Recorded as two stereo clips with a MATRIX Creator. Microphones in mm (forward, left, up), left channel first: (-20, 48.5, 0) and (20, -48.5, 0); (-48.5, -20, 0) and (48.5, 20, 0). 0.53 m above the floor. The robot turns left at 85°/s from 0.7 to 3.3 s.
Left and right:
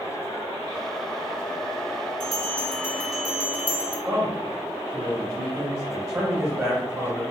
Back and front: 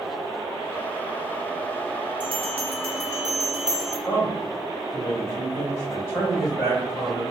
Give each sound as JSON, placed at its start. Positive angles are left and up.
{"t": 2.2, "sound": "a bell", "azimuth_deg": 65, "distance_m": 0.9}
{"t": 4.0, "sound": "a man speaking", "azimuth_deg": -110, "distance_m": 1.1}